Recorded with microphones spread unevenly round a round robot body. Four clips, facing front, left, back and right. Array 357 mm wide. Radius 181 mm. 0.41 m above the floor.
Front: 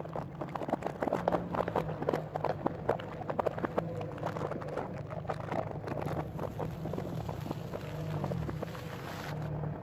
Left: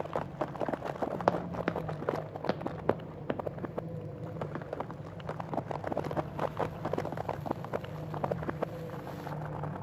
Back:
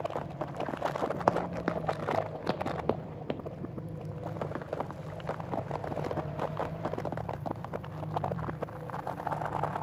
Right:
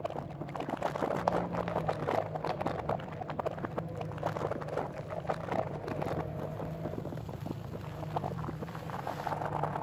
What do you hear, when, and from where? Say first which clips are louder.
1.3 s running footsteps: left 1 dB, back 2 dB; 145° left; by 3.4 s 120° left